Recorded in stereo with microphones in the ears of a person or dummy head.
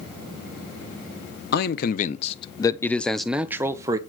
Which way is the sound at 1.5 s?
60° left (ahead or behind).